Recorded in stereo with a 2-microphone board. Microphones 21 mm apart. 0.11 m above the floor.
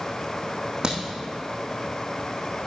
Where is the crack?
45° right (ahead or behind), 2.5 m.